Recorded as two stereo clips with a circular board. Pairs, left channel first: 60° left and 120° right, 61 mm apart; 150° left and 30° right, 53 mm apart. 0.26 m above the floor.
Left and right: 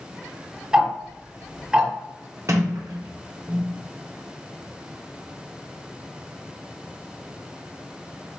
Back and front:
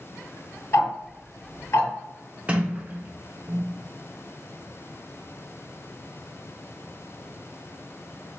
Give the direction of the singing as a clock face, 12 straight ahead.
I don't hear singing.